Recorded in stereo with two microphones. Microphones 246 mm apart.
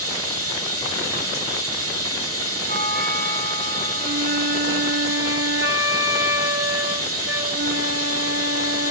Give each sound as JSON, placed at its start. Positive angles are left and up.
{"t": 0.0, "sound": "running water", "side_deg": -65, "distance_m": 2.0}
{"t": 2.7, "sound": "a doorbell", "side_deg": 45, "distance_m": 7.0}
{"t": 4.0, "sound": "a flute", "side_deg": -50, "distance_m": 2.5}